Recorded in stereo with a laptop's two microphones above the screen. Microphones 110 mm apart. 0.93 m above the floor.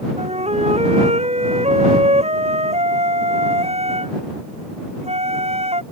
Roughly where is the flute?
Right.